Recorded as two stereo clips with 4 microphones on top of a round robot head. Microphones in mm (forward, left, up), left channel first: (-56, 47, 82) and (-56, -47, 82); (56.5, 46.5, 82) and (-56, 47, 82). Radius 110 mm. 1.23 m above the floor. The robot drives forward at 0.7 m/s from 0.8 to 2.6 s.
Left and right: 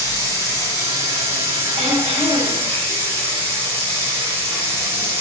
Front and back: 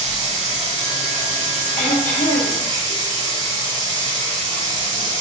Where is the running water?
145° right, 5 m; by 5.2 s 155° right, 6 m.